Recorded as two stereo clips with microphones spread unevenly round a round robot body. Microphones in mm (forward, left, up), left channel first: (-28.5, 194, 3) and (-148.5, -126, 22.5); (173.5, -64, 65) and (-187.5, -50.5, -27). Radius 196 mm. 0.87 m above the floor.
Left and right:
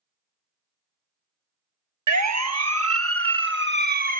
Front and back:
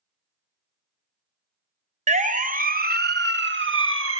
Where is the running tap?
No running tap in this recording.